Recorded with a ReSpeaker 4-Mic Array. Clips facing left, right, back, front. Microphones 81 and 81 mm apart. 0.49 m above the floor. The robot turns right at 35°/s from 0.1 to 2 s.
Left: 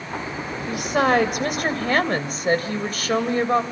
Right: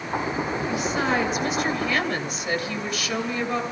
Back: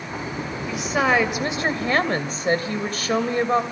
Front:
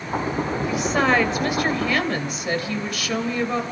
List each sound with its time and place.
0.7 s a woman speaking: 85° left, 3 m; by 3.6 s 130° left, 3 m